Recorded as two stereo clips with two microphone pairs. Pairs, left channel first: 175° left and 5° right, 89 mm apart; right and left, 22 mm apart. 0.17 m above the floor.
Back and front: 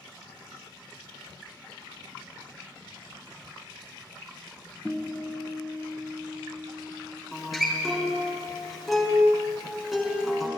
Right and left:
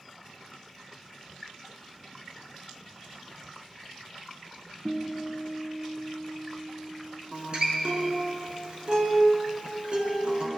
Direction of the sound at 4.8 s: 115° left.